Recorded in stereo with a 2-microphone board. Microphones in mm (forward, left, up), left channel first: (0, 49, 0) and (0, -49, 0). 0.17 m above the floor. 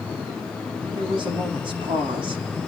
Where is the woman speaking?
60° right (ahead or behind), 9.5 m.